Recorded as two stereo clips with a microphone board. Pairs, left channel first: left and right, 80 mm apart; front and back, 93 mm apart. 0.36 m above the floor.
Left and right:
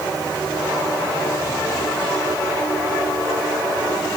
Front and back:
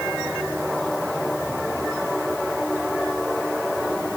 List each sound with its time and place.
Only background noise.